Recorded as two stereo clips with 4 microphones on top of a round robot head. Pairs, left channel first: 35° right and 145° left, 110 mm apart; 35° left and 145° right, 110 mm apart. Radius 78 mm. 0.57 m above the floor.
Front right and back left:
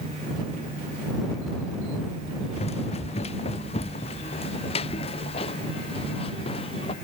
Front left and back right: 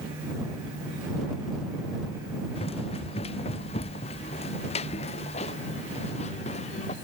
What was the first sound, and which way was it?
Running footsteps, straight ahead.